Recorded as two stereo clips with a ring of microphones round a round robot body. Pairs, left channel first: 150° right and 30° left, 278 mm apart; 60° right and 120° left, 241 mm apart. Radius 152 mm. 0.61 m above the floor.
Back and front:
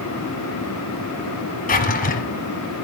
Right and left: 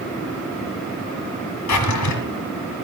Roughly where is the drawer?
Right.